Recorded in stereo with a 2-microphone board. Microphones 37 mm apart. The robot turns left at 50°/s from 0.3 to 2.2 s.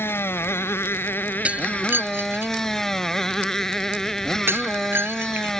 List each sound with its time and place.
0.0 s a motorcycle: 105° left; by 5.6 s 10° left
1.4 s breaking glass: 35° right (ahead or behind); by 5.6 s 70° right (ahead or behind)